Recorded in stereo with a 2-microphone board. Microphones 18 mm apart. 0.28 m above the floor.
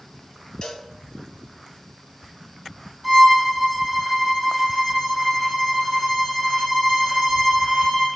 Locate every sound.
0.6 s a cowbell: 55° left (ahead or behind), 2.5 m
3.0 s a violin: centre (ahead or behind), 6.5 m